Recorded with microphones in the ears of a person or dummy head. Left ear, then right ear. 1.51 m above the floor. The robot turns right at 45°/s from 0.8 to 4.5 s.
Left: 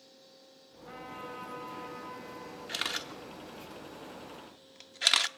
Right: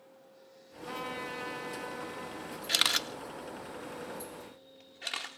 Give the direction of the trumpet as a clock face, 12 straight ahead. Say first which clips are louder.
Right 5 dB; 3 o'clock.